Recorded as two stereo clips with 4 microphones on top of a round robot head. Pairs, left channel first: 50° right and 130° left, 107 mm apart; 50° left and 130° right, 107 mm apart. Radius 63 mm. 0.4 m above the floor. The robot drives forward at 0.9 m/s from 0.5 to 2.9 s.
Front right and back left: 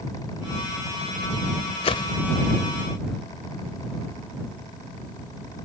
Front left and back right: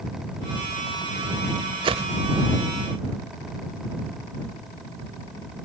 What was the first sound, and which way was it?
A whoosh, 85° right.